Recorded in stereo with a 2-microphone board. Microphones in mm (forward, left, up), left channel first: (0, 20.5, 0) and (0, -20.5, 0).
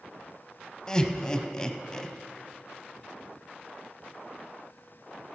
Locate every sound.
0.9 s laughter: 15° left (ahead or behind), 1.1 m